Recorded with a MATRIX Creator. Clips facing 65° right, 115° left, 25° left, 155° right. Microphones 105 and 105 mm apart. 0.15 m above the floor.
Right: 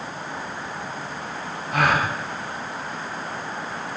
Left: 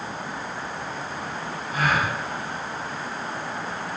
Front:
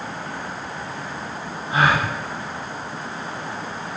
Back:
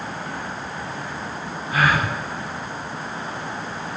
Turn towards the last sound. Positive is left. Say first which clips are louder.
# right 3 dB, front 1 dB
turn(degrees=-40)